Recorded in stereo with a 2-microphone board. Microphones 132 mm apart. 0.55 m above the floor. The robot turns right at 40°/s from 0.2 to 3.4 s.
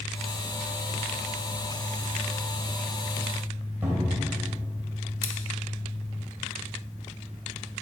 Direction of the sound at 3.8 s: 15° right (ahead or behind).